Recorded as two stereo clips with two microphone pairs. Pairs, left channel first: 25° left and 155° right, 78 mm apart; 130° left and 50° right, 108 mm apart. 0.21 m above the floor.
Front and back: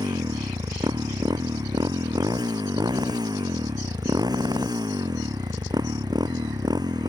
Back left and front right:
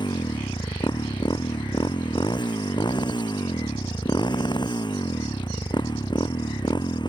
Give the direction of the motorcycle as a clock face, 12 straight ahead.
6 o'clock.